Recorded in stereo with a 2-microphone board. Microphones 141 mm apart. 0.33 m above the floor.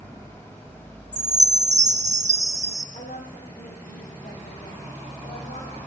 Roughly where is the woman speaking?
Left.